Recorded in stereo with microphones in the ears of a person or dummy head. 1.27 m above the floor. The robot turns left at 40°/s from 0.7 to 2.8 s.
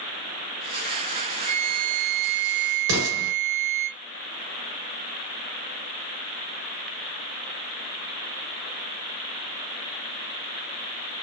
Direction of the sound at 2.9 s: 65° right (ahead or behind).